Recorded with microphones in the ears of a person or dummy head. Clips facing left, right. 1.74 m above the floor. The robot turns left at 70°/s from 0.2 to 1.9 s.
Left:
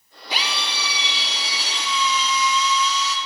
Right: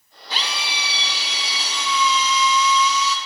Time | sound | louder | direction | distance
0.3 | a drill | left 1 dB | 20° left | 1.3 m